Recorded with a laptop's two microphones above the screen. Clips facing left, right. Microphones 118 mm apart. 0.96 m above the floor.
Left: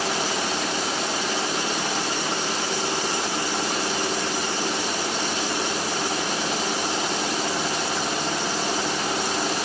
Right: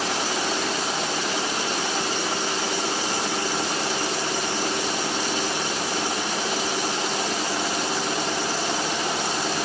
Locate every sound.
Only background noise.